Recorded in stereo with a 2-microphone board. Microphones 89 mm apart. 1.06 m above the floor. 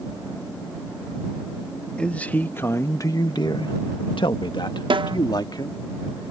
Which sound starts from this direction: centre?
A man speaking, at 2.0 s.